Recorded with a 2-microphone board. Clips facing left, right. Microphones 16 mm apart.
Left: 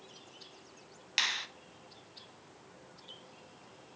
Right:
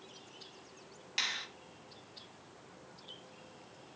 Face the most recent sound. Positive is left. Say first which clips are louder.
# left 4 dB
turn(degrees=30)  # may be behind; listen again after turning